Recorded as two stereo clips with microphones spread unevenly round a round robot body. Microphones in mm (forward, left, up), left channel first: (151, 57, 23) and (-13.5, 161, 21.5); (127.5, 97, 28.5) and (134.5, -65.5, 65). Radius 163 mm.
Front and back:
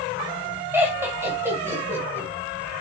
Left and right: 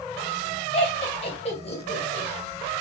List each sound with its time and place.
0.7 s laughter: 70° left, 1.6 m